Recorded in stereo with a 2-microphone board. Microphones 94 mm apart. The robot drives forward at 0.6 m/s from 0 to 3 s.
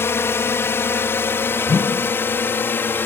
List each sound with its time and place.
0.0 s a drone: 25° left (ahead or behind)
1.7 s a whoosh: 30° left (ahead or behind); by 2.1 s 25° left (ahead or behind)